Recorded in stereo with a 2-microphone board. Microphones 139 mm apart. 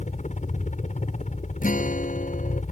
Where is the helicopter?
60° left (ahead or behind).